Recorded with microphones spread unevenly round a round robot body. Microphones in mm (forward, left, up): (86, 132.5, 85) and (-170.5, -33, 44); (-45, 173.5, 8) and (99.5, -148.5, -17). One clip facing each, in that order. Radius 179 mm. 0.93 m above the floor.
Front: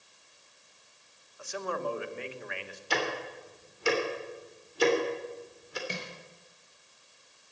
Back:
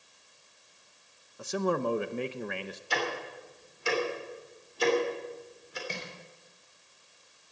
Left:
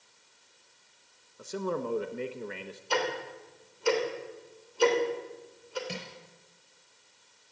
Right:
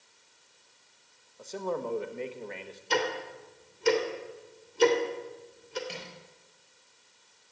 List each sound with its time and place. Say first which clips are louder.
1.4 s a man speaking: back 6 dB, left 1 dB; 175° right, 1.0 m
2.9 s ticking: front 2 dB, right 1 dB; 5° right, 3 m
5.9 s crushing: front 1 dB, left 2 dB; 110° left, 4.5 m